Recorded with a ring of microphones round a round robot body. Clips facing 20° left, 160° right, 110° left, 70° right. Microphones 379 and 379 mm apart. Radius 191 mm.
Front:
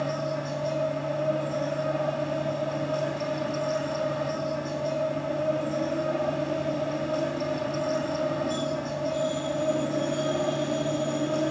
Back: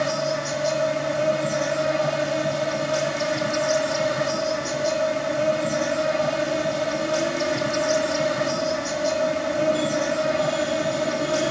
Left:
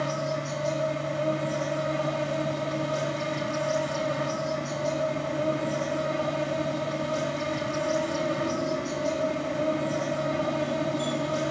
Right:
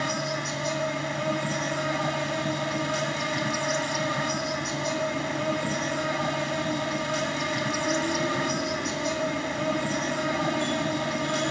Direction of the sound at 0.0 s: 140° right.